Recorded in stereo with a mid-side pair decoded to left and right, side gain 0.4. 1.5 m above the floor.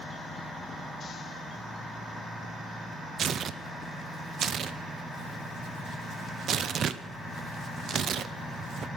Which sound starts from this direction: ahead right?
Tearing paper, at 3.2 s.